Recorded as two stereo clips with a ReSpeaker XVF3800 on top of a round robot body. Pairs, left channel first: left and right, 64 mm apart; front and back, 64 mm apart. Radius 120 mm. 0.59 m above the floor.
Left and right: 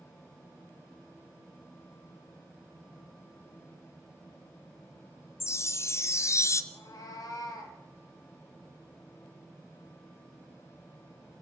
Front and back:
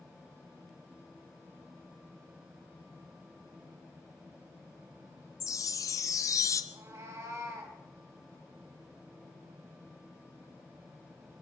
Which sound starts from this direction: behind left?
A cat meowing, at 6.7 s.